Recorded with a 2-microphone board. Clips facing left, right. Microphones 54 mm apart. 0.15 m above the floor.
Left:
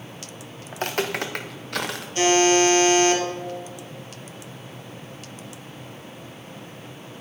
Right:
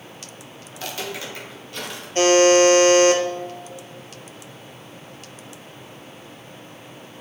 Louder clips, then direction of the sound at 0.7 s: Left 5 dB; 40° left (ahead or behind).